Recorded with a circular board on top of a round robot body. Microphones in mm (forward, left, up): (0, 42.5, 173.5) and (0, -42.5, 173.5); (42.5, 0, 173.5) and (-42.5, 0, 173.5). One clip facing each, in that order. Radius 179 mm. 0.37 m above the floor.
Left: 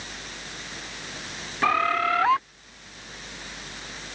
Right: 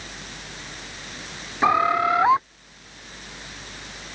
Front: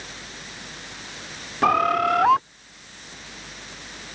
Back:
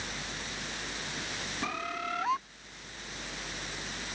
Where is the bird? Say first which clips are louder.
Right 4 dB, front 18 dB; 20° right.